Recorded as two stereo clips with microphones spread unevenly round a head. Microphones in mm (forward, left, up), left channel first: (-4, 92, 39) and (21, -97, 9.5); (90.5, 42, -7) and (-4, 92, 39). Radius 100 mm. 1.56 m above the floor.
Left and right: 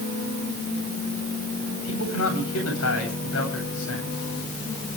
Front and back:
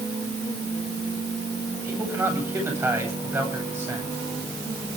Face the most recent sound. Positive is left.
turn(degrees=85)